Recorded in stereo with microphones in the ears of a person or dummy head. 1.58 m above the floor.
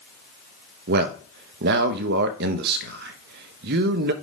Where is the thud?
I don't hear a thud.